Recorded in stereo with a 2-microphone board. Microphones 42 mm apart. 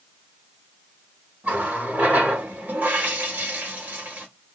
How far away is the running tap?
About 1.1 m.